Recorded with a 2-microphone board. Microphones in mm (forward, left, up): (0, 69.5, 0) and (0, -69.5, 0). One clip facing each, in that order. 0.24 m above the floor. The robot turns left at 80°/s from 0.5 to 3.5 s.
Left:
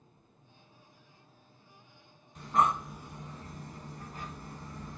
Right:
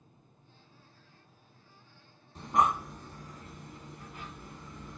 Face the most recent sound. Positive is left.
turn(degrees=40)  # may be behind; listen again after turning